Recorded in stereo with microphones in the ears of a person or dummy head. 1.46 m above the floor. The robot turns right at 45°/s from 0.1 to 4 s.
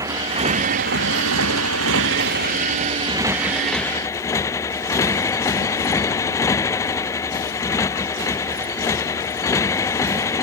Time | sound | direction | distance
0.0 | a motorcycle | 160° right | ?